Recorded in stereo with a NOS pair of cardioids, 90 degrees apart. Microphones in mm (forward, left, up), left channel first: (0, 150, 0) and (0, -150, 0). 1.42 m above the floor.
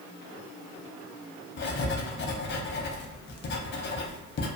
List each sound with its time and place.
1.6 s writing: 40° left, 0.5 m